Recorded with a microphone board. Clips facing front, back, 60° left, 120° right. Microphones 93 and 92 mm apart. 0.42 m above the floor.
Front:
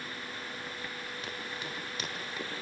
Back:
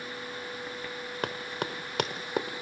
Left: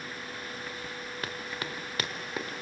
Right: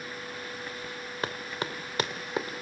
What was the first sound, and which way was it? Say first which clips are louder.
Running footsteps: back 10 dB, right 5 dB; straight behind.